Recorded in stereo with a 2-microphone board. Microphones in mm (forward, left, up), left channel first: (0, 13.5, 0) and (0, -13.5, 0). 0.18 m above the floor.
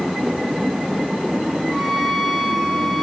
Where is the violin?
5° left (ahead or behind), 8.5 m.